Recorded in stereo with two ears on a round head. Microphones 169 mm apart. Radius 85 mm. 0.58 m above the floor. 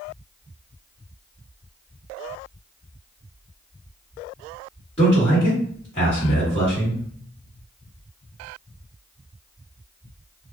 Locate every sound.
5.0 s a man speaking: 30° left (ahead or behind), 1.4 m